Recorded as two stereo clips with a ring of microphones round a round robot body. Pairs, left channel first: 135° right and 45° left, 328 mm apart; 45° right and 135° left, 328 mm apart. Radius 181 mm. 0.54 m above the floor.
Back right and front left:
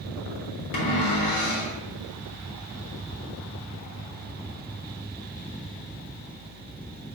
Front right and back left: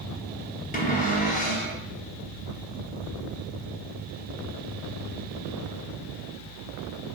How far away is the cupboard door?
About 1.1 m.